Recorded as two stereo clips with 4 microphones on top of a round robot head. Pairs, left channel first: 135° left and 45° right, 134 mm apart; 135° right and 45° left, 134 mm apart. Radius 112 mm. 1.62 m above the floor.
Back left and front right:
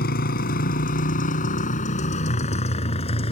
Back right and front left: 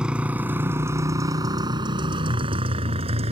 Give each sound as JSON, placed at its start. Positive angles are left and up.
{"t": 0.0, "sound": "a motorcycle", "azimuth_deg": 125}